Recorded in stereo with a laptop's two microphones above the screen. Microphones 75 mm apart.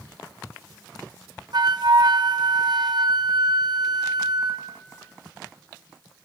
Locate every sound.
1.5 s a flute: 60° right (ahead or behind), 0.9 m